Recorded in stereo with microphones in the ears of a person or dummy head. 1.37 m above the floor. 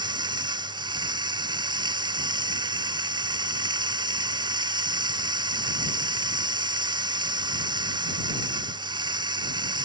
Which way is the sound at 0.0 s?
25° right (ahead or behind).